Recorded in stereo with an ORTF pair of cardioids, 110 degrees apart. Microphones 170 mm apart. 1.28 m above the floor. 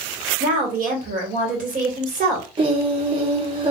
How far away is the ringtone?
No ringtone in this recording.